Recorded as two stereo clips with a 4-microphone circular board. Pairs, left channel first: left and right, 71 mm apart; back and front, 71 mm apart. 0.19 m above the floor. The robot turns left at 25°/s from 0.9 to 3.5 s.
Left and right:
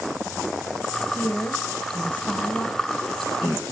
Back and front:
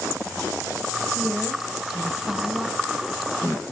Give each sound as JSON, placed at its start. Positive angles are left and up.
{"t": 1.1, "sound": "a woman speaking", "azimuth_deg": 90, "distance_m": 1.1}